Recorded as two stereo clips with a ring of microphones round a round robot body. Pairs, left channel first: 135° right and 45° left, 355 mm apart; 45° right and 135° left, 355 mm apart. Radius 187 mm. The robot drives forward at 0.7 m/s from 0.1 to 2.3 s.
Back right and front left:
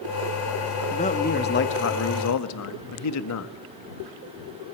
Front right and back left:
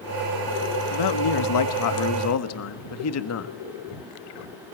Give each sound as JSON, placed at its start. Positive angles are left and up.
{"t": 0.9, "sound": "a man speaking", "azimuth_deg": -60, "distance_m": 2.0}